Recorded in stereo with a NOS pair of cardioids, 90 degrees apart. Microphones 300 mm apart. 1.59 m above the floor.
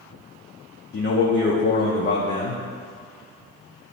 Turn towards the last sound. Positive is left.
turn(degrees=35)